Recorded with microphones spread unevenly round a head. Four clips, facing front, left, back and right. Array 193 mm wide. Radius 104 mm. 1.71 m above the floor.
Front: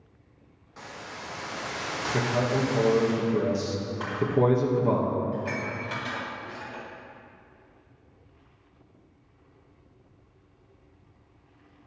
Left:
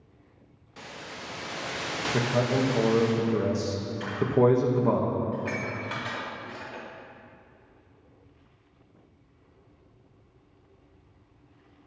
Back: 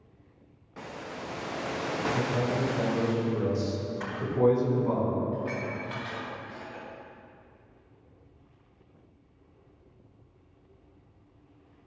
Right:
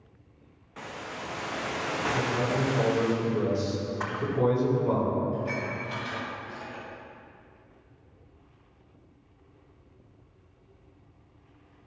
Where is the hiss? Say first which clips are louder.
Right 3 dB, back 2 dB; 165° right, 0.5 m.